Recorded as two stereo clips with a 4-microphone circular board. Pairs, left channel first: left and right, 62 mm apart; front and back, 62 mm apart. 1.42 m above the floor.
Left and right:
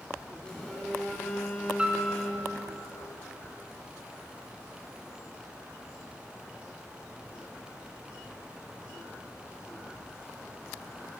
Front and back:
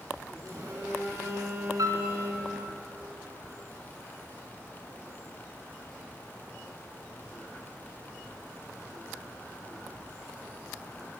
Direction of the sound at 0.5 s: 165° left.